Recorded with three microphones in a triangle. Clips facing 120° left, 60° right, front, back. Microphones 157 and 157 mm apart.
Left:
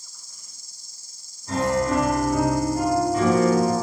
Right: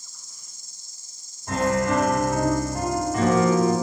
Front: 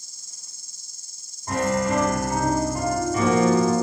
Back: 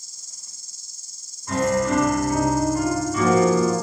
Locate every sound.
0.0 s an insect: 5° left, 0.7 m
1.5 s a piano: 40° right, 3 m